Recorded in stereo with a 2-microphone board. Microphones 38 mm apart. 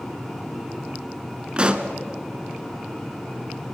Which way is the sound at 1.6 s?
30° right (ahead or behind).